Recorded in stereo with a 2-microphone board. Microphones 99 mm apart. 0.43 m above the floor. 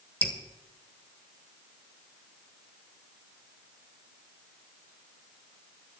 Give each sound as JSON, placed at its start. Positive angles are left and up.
{"t": 0.2, "sound": "dripping", "side_deg": 15, "distance_m": 1.5}